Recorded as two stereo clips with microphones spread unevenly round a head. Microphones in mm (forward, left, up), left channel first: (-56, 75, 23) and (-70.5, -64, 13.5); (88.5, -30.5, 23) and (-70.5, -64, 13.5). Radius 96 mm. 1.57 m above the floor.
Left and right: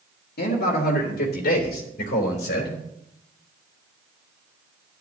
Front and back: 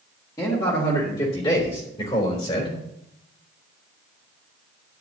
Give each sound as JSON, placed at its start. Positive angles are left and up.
{"t": 0.4, "sound": "a man speaking", "azimuth_deg": 85, "distance_m": 2.5}